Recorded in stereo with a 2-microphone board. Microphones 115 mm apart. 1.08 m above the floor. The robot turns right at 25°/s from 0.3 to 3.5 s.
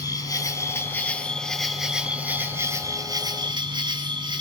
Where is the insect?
145° left, 2.5 m; by 4.4 s 135° right, 2.5 m.